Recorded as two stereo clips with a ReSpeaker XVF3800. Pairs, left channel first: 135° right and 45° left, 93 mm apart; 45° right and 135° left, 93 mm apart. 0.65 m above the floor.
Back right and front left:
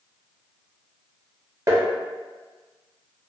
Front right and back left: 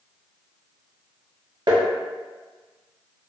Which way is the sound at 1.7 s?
100° left.